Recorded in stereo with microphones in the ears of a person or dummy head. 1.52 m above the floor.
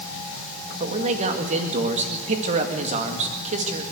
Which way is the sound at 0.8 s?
40° right (ahead or behind).